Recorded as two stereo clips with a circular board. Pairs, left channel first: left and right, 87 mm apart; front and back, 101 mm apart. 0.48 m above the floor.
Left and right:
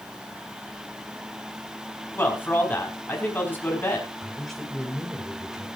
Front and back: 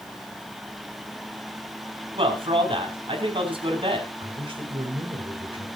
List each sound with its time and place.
2.1 s a man speaking: 155° left, 5 m
4.2 s a man speaking: straight behind, 2.5 m